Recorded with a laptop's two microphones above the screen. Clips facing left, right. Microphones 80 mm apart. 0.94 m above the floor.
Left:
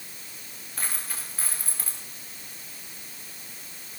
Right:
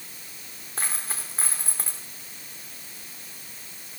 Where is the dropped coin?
30° right (ahead or behind), 4 m.